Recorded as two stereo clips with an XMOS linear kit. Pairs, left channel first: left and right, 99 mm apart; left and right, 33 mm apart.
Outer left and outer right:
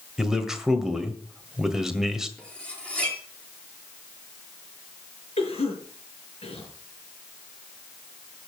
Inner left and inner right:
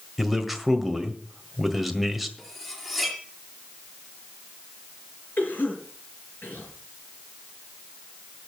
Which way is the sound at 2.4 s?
10° left (ahead or behind).